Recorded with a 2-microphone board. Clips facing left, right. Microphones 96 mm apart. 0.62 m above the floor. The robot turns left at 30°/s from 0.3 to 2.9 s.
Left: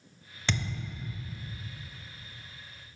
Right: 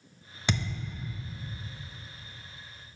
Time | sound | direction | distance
0.5 | a thud | 15° right (ahead or behind) | 0.6 m